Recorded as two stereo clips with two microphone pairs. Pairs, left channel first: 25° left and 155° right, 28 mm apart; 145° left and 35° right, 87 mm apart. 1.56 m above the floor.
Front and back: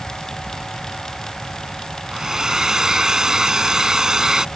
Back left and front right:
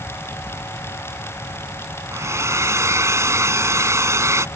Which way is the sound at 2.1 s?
95° right.